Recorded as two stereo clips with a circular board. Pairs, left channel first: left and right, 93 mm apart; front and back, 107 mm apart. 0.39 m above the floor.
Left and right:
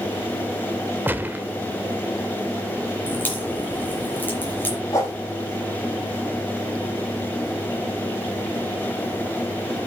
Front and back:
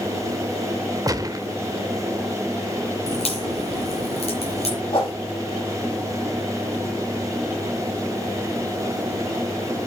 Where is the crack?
20° left, 5 m.